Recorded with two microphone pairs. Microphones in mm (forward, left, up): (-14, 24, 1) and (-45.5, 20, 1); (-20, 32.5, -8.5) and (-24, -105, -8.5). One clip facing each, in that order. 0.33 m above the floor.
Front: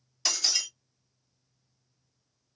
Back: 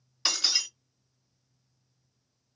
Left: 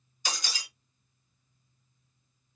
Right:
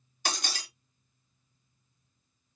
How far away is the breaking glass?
About 3 m.